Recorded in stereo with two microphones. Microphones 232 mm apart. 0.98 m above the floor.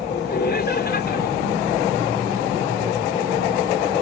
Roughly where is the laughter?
Left.